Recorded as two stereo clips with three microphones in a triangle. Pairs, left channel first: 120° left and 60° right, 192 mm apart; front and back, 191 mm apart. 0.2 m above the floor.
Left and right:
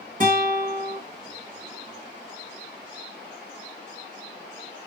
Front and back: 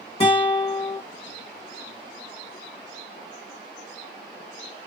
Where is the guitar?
40° right, 1.2 m.